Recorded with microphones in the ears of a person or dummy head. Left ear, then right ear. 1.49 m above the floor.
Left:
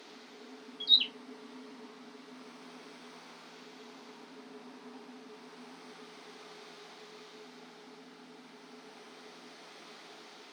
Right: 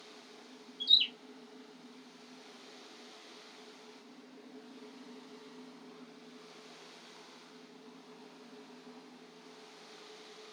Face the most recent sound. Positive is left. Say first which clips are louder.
# left 1 dB
turn(degrees=5)  # may be behind; listen again after turning